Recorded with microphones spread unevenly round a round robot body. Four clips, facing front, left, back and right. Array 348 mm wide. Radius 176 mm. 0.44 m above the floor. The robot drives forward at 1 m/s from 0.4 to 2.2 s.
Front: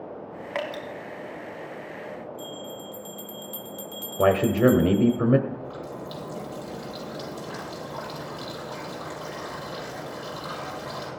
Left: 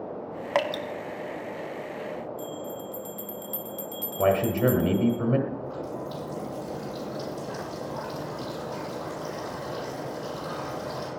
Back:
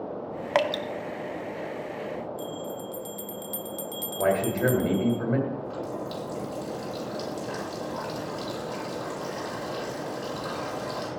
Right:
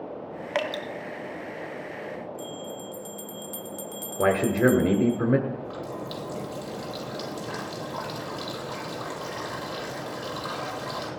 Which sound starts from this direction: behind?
Dripping, at 0.6 s.